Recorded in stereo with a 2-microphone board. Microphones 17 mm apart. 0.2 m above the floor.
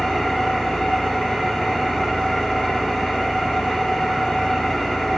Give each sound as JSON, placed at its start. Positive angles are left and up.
{"t": 0.0, "sound": "an engine running", "side_deg": 75, "distance_m": 9.0}